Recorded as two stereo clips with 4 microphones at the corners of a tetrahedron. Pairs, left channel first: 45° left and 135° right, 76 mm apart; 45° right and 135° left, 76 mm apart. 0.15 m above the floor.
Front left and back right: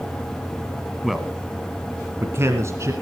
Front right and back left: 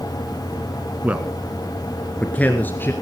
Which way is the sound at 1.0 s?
135° left.